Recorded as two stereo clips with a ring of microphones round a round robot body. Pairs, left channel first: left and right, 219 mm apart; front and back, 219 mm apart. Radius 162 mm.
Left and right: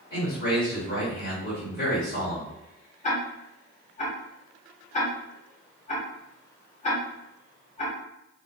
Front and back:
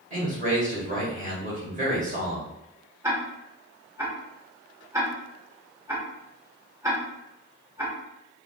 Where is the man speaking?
140° left, 1.7 m.